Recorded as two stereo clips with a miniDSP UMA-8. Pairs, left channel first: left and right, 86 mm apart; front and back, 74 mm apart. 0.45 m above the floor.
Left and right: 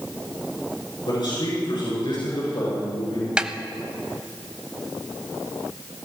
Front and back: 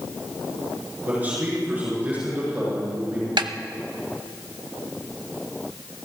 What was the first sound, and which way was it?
A man speaking, 115° left.